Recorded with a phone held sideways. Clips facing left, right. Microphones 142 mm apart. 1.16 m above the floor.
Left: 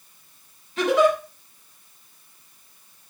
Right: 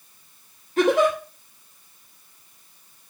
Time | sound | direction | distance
0.8 | a giggle | 50° right (ahead or behind) | 3 m